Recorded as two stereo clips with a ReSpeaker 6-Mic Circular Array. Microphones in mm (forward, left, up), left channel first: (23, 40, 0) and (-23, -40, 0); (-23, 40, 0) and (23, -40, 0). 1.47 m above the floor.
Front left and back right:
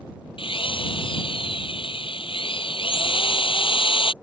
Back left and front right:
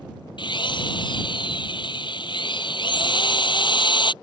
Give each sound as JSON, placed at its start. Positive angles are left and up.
{"t": 0.4, "sound": "a drill", "azimuth_deg": 85}